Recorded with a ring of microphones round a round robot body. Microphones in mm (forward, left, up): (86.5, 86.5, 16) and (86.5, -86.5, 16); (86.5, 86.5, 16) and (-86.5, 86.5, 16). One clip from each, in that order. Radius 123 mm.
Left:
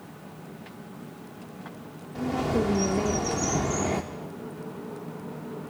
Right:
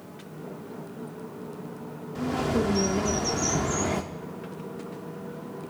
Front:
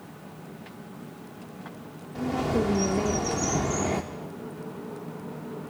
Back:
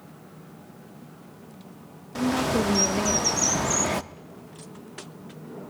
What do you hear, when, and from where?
2.1 s a bird: 170° right, 0.7 m